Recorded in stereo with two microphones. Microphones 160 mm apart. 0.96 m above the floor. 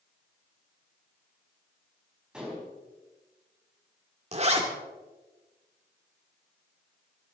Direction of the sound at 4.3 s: 40° right (ahead or behind).